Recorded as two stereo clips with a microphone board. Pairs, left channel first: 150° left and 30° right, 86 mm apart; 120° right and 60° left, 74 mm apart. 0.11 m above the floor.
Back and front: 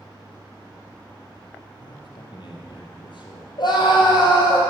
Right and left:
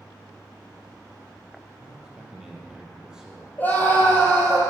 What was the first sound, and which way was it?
A man speaking, 140° left.